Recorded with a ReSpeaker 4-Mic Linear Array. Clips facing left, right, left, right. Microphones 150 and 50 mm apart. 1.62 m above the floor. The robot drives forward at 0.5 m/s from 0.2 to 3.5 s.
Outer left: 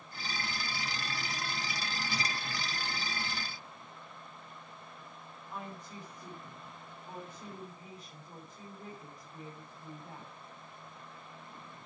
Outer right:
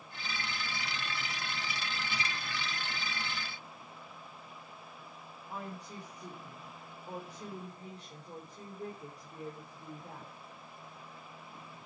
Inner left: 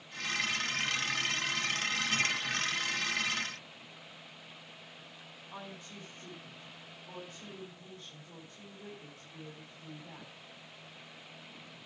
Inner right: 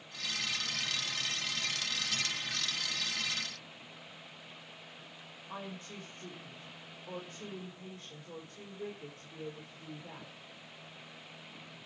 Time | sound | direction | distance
5.5 | a woman speaking | 35° right (ahead or behind) | 4.5 m